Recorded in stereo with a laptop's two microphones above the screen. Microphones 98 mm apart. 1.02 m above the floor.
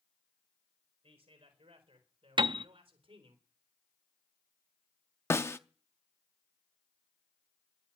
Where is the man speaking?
80° right, 4 m; by 3.4 s 65° right (ahead or behind), 3.5 m.